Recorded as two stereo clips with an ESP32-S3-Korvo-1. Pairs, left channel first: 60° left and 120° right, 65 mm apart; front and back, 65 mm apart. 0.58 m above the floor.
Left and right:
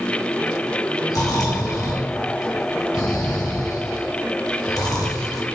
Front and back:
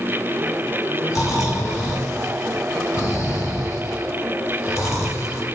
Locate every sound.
1.1 s snoring: 45° left, 2 m